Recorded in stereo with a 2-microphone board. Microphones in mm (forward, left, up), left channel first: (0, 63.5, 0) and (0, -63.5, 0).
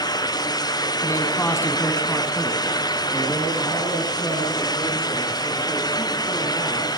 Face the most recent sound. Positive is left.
turn(degrees=-20)  # may be behind; listen again after turning